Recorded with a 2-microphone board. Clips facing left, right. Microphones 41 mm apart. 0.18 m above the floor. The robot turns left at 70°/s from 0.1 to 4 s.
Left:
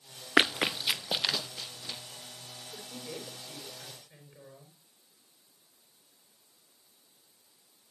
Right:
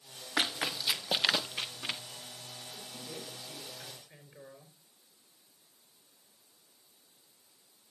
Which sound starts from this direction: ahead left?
A woman speaking, at 2.7 s.